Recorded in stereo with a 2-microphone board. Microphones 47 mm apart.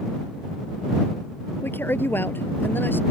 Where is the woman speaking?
50° left (ahead or behind); by 3.0 s 45° left (ahead or behind).